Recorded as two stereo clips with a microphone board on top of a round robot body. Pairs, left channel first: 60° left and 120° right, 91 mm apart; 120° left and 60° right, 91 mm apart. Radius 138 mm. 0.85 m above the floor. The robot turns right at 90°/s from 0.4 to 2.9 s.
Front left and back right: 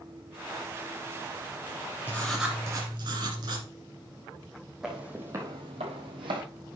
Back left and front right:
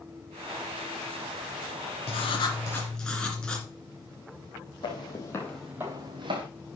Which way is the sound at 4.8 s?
155° left.